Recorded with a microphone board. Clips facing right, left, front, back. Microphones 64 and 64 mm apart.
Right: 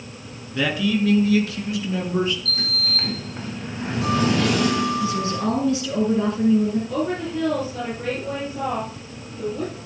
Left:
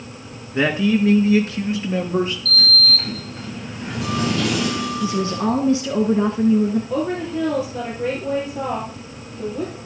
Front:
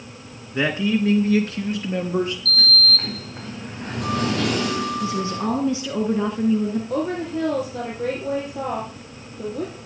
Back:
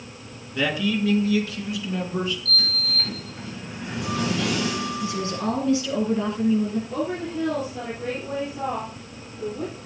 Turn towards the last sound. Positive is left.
turn(degrees=15)